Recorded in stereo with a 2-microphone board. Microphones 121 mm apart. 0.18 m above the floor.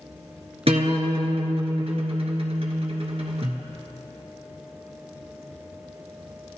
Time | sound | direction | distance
0.7 | a guitar | 55° right (ahead or behind) | 1.1 m